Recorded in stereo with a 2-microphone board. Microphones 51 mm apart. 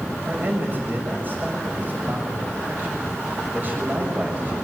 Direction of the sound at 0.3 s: 40° right (ahead or behind).